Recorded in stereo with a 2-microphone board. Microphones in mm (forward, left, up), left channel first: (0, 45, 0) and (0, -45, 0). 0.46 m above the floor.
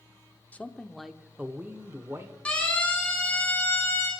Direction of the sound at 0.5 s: 15° left (ahead or behind).